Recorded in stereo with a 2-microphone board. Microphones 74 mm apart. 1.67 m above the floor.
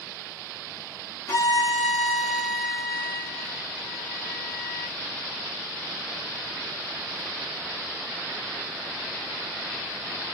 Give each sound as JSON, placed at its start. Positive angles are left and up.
{"t": 1.3, "sound": "a violin", "side_deg": 40, "distance_m": 2.5}